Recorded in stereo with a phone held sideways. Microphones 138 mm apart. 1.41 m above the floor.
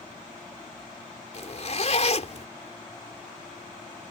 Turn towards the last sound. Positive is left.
turn(degrees=50)  # may be behind; listen again after turning